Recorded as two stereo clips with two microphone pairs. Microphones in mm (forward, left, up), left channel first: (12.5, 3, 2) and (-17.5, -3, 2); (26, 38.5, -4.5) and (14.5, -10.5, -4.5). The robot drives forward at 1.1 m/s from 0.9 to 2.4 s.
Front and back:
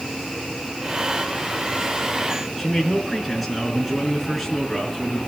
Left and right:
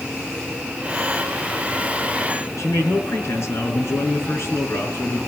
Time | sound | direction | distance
2.6 | a man speaking | 100° left | 5.5 m